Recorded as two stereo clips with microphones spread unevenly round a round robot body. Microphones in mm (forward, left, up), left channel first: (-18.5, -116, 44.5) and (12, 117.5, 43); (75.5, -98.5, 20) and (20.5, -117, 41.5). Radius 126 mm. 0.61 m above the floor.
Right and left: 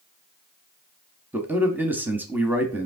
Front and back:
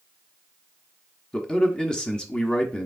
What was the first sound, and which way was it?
A man speaking, 5° left.